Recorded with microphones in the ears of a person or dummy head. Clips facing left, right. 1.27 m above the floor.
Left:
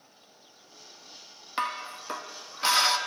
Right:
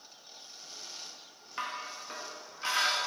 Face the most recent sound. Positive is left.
turn(degrees=60)  # may be behind; listen again after turning